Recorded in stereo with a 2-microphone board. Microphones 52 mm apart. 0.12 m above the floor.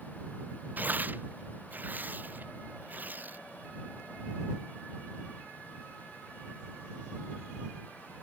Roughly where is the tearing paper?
Right.